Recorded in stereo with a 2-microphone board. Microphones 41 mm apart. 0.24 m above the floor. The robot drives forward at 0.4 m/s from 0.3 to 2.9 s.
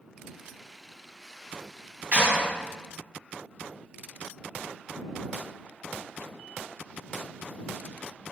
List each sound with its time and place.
2.1 s a clap: 45° right (ahead or behind), 1.6 m; by 2.5 s 40° right (ahead or behind), 1.6 m